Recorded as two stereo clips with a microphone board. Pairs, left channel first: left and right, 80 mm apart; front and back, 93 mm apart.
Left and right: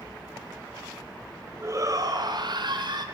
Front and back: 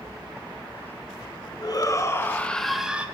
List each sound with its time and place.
1.6 s a shout: 40° right, 1.9 m; by 3.0 s 105° right, 1.7 m